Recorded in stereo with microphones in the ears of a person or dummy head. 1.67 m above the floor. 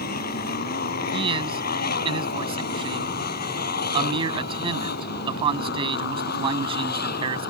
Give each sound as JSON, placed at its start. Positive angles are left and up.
{"t": 0.0, "sound": "a motorcycle", "side_deg": 60}
{"t": 1.1, "sound": "a man speaking", "side_deg": -30}